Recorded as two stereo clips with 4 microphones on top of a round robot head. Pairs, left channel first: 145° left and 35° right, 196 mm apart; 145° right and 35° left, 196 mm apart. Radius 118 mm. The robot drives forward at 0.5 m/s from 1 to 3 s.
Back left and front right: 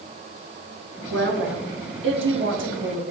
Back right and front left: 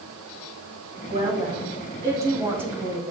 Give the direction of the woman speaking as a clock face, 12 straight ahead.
1 o'clock.